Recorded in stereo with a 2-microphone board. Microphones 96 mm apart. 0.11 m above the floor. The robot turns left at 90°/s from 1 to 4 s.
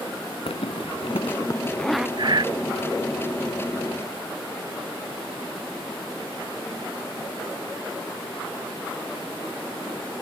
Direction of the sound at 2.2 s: 55° right (ahead or behind).